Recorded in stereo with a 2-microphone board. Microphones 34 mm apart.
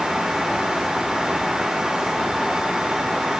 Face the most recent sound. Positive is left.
No sound to turn to.